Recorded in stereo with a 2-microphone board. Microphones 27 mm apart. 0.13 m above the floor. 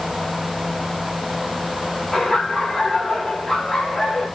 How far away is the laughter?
About 8.5 m.